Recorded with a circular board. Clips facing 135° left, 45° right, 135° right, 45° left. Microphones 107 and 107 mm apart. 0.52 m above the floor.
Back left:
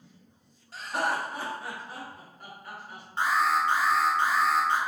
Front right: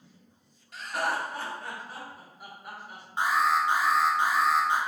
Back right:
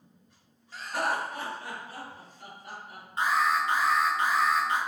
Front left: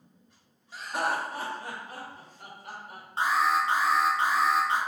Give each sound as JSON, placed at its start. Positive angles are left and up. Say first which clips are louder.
{"t": 0.7, "sound": "laughter", "louder": "back left 1 dB, even", "azimuth_deg": 115, "distance_m": 0.8}
{"t": 3.2, "sound": "an alarm", "louder": "even, front left 1 dB", "azimuth_deg": 20, "distance_m": 0.7}